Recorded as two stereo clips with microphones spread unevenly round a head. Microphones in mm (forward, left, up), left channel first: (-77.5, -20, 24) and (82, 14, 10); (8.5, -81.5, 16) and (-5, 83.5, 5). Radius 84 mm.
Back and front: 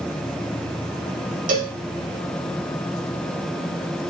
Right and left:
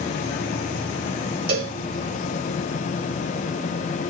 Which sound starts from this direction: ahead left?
A cowbell, at 1.5 s.